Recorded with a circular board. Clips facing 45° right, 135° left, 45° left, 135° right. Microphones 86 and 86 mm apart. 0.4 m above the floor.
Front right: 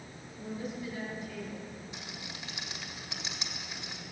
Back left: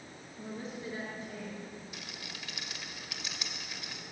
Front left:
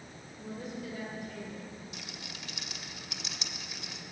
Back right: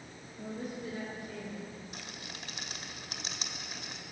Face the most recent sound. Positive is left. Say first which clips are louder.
# front right 2 dB, even
turn(degrees=-100)